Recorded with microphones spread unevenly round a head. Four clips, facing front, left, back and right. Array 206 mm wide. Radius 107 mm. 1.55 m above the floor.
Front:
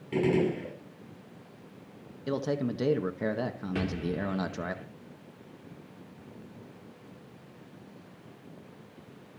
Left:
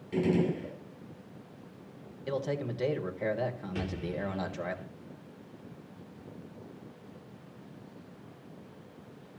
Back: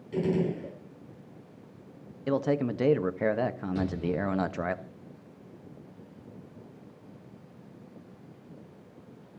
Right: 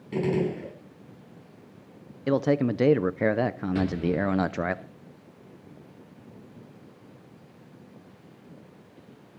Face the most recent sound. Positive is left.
turn(degrees=-5)